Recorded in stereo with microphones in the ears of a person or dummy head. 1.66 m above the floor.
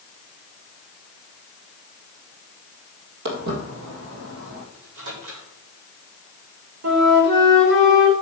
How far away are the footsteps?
About 2.5 m.